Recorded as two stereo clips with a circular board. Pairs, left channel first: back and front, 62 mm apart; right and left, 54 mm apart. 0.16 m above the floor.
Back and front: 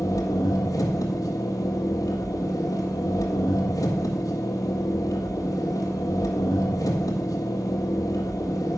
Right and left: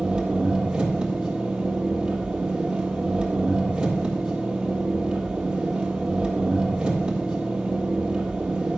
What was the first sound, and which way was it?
An engine running, 160° left.